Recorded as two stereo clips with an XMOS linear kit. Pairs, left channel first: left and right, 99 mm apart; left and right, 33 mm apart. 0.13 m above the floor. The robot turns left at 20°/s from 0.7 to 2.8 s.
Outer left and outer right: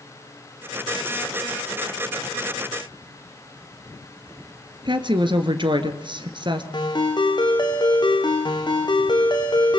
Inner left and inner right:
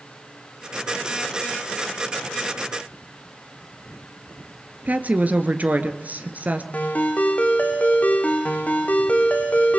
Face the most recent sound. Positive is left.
turn(degrees=45)  # may be behind; listen again after turning